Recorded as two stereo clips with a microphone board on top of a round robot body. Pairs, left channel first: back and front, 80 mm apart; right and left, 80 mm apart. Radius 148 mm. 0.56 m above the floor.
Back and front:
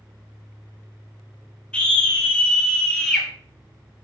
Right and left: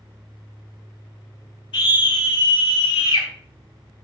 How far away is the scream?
About 6 m.